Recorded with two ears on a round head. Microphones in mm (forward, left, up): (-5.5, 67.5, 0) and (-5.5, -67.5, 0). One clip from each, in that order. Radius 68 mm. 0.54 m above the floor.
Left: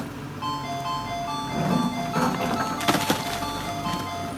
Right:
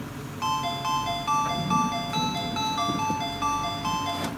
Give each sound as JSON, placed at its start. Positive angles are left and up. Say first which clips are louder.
{"t": 0.4, "sound": "a ringtone", "louder": "right 2 dB", "side_deg": -70, "distance_m": 3.0}